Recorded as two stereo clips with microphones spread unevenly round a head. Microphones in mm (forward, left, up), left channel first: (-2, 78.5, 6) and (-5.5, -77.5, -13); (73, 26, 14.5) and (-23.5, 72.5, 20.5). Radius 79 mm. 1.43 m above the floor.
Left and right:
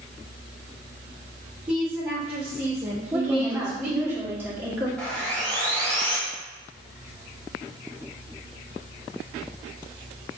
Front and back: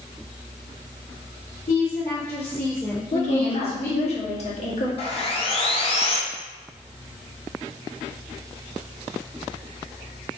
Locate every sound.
1.7 s a woman speaking: 5° right, 2 m
3.1 s a woman speaking: 15° right, 1.4 m
5.0 s sawing: 5° left, 1.0 m